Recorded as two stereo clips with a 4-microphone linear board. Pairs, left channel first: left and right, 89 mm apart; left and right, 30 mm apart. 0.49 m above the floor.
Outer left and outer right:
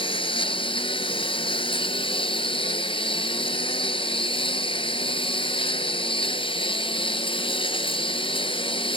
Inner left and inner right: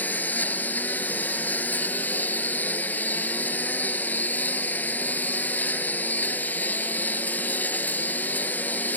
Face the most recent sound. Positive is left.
turn(degrees=80)